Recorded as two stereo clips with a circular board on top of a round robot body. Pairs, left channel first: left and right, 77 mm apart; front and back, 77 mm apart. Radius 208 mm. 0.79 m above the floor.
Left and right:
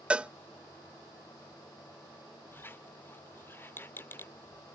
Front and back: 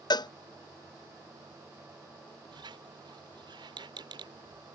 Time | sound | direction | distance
0.1 | a cowbell | 15° right | ?
2.5 | a squeak | 155° left | ?